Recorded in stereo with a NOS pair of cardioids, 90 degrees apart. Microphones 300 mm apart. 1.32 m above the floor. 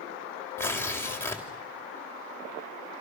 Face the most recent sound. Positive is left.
turn(degrees=10)